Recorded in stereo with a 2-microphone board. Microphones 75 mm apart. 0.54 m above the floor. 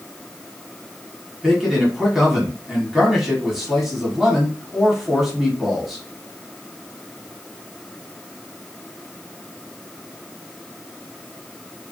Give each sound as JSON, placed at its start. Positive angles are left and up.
{"t": 1.4, "sound": "a man speaking", "side_deg": -5, "distance_m": 1.1}